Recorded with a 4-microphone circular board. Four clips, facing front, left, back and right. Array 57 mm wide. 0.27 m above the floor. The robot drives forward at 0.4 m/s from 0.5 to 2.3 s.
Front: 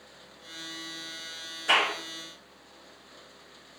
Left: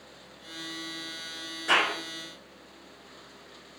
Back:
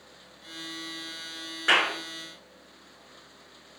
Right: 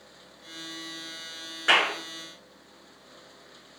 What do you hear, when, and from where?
1.7 s a clap: 140° right, 3.5 m